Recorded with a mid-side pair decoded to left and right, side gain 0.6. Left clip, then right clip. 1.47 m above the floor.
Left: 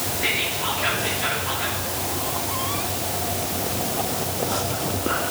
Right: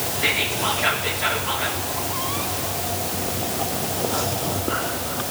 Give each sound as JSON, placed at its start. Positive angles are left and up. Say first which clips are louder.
{"t": 0.2, "sound": "whispering", "louder": "right 2 dB", "azimuth_deg": -10, "distance_m": 3.0}